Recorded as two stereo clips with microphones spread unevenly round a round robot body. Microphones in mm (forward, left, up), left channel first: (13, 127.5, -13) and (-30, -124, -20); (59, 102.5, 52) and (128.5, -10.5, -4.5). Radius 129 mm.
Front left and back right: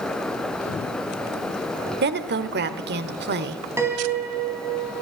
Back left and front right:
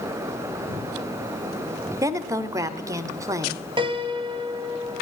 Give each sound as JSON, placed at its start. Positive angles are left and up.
{"t": 2.0, "sound": "a woman speaking", "azimuth_deg": -70, "distance_m": 1.1}
{"t": 3.8, "sound": "a piano", "azimuth_deg": -20, "distance_m": 3.0}